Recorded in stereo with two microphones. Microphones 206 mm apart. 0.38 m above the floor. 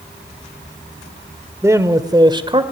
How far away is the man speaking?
About 1.5 m.